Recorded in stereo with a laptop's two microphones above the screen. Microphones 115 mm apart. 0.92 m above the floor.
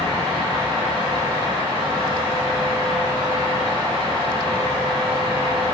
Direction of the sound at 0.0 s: 45° right (ahead or behind).